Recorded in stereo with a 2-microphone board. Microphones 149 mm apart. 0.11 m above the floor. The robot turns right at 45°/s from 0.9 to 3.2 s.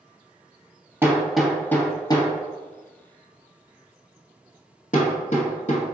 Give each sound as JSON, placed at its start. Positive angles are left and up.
{"t": 1.0, "sound": "hammering", "side_deg": -15, "distance_m": 1.1}